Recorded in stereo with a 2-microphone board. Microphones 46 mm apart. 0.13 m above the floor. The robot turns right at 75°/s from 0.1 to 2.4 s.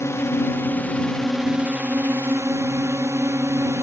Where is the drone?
90° left; by 3.8 s 95° right.